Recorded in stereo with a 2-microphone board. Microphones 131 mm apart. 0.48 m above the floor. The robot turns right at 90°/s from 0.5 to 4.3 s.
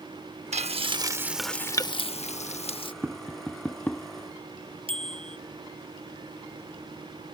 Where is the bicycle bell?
45° right (ahead or behind).